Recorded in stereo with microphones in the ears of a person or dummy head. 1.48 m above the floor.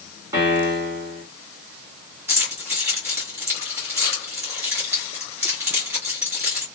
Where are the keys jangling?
10° right (ahead or behind), 1.5 m.